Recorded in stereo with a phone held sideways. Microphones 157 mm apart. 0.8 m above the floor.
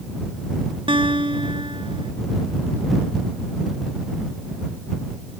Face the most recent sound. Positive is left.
turn(degrees=-35)  # may be behind; listen again after turning